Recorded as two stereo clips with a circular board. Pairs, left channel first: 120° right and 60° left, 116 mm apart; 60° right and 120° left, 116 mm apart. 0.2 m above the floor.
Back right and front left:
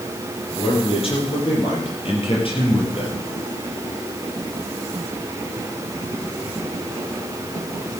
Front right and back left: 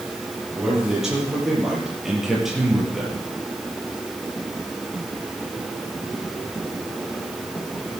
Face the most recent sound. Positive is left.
turn(degrees=-150)